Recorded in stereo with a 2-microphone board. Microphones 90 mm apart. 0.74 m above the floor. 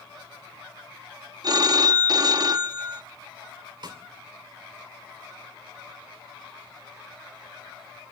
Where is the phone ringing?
45° right (ahead or behind), 0.6 m.